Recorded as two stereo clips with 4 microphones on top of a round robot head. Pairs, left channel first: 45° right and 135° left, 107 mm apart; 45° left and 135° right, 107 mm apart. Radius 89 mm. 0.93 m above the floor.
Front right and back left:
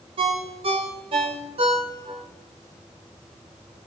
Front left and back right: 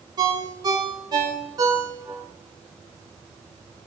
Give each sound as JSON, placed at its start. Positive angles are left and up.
{"t": 0.2, "sound": "a ringtone", "azimuth_deg": 170, "distance_m": 2.5}